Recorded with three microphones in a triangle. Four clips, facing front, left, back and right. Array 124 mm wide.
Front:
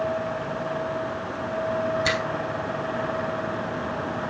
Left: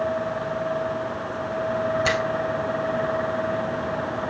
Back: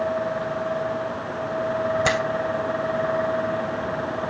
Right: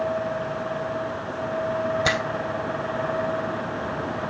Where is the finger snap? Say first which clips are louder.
Left 1 dB, back 3 dB; 155° right, 3 m.